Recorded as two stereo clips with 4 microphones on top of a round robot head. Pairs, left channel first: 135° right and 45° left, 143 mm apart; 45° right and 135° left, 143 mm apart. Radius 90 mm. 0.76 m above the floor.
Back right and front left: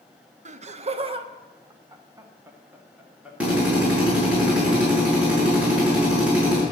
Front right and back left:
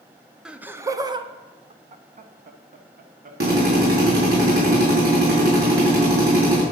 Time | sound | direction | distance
0.5 | laughter | 55° left | 1.0 m
3.4 | a drill | 125° left | 6 m